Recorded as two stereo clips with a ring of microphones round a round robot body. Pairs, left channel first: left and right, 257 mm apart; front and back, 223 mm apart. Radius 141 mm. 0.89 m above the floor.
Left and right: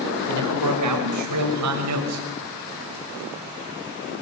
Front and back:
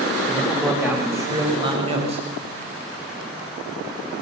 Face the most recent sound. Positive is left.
turn(degrees=-115)